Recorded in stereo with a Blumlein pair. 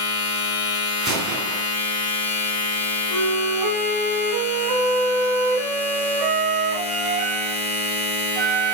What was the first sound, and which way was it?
A machine running, 55° left.